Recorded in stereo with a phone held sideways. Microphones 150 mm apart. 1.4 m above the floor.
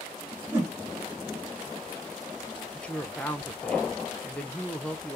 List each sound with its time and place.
0.5 s a whoosh: 15° right (ahead or behind), 2.5 m
2.7 s a woman speaking: 10° left (ahead or behind), 1.1 m